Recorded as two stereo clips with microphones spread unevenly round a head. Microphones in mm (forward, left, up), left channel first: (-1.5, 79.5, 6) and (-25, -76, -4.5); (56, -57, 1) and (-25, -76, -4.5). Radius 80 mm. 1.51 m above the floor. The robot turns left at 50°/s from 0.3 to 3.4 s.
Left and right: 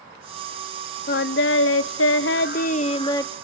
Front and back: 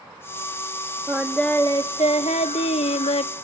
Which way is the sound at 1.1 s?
115° left.